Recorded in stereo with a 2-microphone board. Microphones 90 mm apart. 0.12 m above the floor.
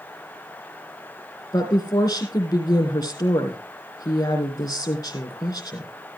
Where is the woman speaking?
50° left (ahead or behind), 3.5 m.